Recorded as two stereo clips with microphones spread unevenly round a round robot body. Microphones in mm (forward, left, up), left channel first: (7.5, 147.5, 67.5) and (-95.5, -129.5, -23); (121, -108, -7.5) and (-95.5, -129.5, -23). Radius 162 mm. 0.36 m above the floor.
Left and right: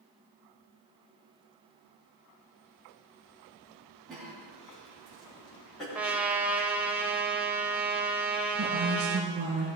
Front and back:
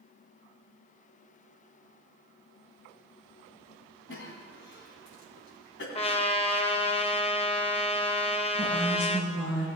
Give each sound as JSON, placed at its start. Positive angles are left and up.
{"t": 4.1, "sound": "a cough", "azimuth_deg": -25, "distance_m": 3.0}
{"t": 6.0, "sound": "a trumpet", "azimuth_deg": -50, "distance_m": 0.8}
{"t": 8.6, "sound": "a woman speaking", "azimuth_deg": -55, "distance_m": 2.5}